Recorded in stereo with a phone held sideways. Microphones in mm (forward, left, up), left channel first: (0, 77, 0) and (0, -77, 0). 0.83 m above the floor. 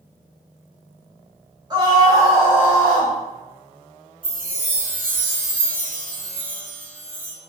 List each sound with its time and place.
1.7 s a scream: 30° right (ahead or behind), 1.0 m; by 3.1 s 5° right (ahead or behind), 1.3 m
4.2 s a chime: 10° left (ahead or behind), 1.2 m